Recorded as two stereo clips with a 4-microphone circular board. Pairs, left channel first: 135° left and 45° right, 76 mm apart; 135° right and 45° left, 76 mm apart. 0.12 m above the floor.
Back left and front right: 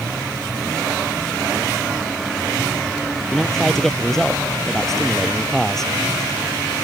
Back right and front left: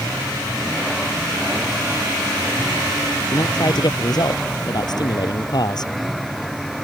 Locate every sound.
3.3 s a man speaking: 140° right